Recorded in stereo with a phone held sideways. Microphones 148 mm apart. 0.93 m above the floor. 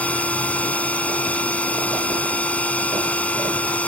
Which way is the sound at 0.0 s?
10° left (ahead or behind).